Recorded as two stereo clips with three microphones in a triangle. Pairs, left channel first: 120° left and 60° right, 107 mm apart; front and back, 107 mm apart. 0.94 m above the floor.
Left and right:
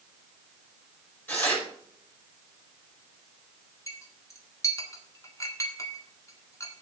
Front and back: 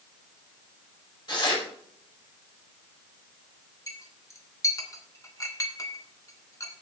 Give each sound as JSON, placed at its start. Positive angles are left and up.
{"t": 1.3, "sound": "tearing paper", "azimuth_deg": 45, "distance_m": 5.5}
{"t": 3.9, "sound": "a clink", "azimuth_deg": 60, "distance_m": 1.7}